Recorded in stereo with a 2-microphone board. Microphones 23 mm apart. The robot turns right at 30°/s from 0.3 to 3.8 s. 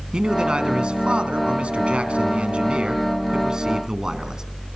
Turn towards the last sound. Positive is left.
turn(degrees=-30)